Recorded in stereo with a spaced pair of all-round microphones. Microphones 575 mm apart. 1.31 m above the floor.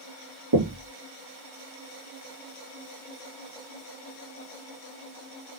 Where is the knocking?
35° right (ahead or behind), 0.7 m.